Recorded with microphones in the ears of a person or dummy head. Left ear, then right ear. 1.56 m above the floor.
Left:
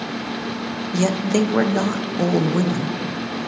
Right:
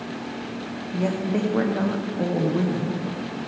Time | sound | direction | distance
0.9 | a woman speaking | 75° left (ahead or behind) | 1.0 m